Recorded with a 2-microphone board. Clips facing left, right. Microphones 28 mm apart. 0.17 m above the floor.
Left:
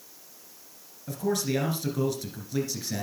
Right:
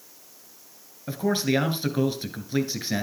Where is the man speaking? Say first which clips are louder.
Right 4 dB; 35° right (ahead or behind), 2.5 m.